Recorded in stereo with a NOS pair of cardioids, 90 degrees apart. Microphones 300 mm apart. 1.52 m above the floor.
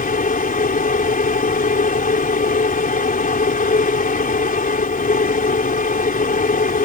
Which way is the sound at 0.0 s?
30° left.